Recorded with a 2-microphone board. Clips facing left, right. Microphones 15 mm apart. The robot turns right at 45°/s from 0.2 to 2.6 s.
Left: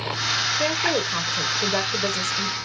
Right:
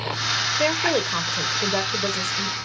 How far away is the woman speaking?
About 1.2 m.